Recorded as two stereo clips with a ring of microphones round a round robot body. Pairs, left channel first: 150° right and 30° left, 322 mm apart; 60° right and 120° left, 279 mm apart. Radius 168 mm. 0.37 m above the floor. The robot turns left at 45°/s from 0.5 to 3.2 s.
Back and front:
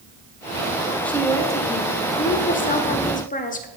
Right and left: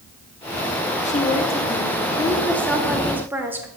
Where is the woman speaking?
70° right, 1.2 m; by 3.7 s 165° right, 1.2 m.